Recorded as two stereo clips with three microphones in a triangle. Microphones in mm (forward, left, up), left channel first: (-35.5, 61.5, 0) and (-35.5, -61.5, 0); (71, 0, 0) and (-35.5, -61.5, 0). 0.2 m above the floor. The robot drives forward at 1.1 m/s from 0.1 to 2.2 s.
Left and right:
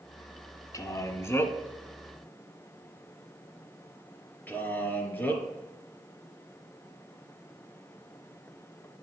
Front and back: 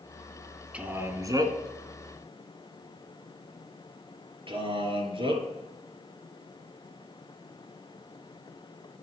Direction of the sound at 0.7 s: 135° left.